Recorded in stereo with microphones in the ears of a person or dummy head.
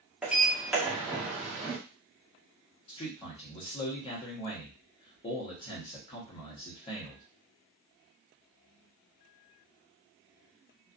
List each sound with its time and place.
0.2 s a sliding door: 10° right (ahead or behind), 0.7 m
2.9 s a man speaking: 25° left (ahead or behind), 0.9 m